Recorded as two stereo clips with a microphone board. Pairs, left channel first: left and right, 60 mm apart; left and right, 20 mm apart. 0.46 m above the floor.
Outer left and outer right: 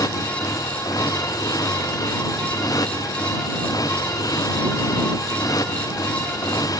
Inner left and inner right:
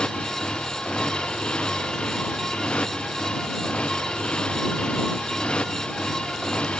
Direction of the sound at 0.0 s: 90° left.